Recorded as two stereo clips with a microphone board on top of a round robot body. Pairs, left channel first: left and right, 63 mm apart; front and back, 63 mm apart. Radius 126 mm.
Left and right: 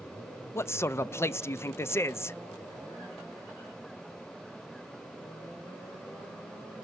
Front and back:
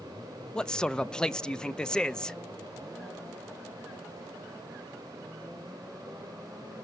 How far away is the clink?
I don't hear a clink.